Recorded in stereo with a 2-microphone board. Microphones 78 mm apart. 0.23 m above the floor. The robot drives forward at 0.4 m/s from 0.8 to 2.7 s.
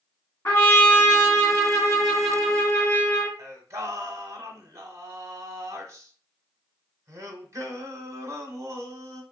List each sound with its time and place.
0.5 s a trumpet: 35° left (ahead or behind), 1.9 m; by 3.3 s 30° left (ahead or behind), 2.5 m
3.4 s singing: 40° right (ahead or behind), 0.7 m